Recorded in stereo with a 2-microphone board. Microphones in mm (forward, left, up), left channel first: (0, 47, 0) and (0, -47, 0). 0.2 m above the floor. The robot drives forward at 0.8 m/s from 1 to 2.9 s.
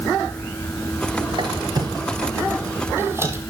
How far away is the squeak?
About 0.9 m.